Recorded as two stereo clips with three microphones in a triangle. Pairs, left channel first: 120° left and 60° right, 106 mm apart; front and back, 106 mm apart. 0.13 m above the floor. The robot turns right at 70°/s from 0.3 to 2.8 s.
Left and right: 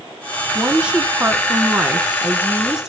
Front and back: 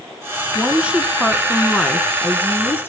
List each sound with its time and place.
0.6 s a woman speaking: 145° right, 1.4 m; by 2.9 s 10° left, 1.4 m